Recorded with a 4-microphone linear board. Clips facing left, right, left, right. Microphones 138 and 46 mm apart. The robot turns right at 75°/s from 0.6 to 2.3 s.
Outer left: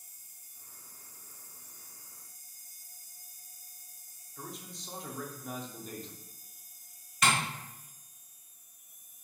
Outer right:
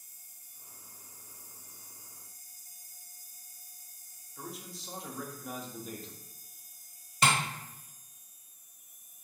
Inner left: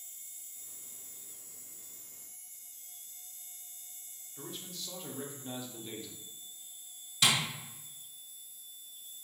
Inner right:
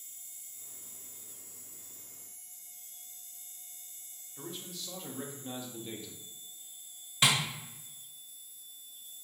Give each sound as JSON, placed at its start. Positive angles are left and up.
{"t": 4.4, "sound": "a man speaking", "side_deg": 0, "distance_m": 0.7}
{"t": 7.2, "sound": "tapping", "side_deg": -30, "distance_m": 1.1}